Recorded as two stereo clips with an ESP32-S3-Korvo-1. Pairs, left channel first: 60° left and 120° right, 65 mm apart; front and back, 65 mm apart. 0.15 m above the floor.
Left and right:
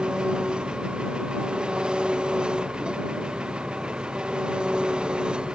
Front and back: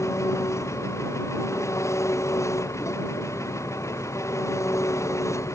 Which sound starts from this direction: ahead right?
An engine running, at 0.0 s.